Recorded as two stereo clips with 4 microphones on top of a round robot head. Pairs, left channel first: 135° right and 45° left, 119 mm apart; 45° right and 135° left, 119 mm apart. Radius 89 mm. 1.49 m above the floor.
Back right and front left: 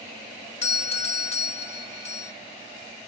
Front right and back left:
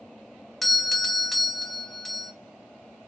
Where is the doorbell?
135° right, 1.0 m.